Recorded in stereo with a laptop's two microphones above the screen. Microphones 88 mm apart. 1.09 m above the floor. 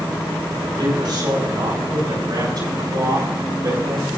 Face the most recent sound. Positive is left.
turn(degrees=-50)  # may be behind; listen again after turning